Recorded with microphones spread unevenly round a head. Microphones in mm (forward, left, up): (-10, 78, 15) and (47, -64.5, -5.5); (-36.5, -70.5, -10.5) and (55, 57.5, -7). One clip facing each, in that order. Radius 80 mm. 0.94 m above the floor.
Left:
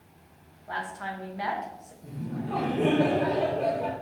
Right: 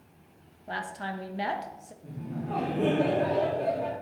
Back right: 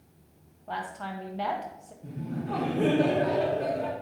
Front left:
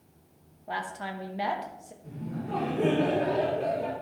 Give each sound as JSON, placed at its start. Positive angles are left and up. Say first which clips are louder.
{"t": 0.7, "sound": "a woman speaking", "louder": "even, even", "azimuth_deg": -25, "distance_m": 0.8}
{"t": 2.0, "sound": "laughter", "louder": "left 2 dB, back right 2 dB", "azimuth_deg": -155, "distance_m": 2.5}